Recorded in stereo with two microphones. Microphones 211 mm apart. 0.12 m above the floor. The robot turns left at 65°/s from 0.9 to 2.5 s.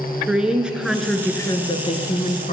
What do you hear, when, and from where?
0.3 s a woman speaking: 175° right, 1.5 m; by 2.5 s 85° left, 1.5 m